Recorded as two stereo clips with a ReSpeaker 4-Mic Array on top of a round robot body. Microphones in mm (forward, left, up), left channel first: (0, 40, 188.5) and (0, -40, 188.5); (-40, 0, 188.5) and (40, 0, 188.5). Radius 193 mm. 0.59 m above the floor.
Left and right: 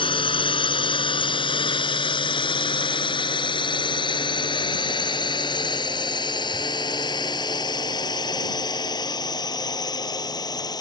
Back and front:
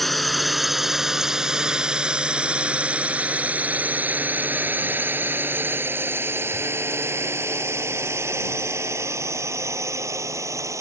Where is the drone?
90° left; by 10.8 s 55° left.